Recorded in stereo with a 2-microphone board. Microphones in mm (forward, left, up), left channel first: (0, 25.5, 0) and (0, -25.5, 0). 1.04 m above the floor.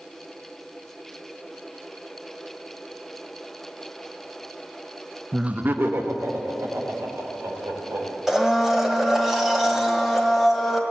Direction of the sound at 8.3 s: 5° right (ahead or behind).